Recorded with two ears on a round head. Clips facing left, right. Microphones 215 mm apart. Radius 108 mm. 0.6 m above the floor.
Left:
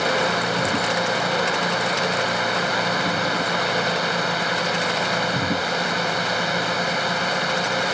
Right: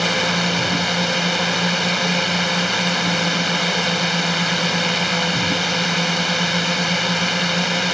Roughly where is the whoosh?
No whoosh in this recording.